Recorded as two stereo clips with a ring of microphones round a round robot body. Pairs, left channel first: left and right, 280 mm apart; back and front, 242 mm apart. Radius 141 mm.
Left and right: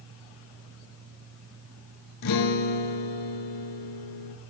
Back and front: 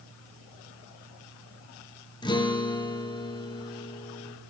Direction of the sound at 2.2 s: 105° left.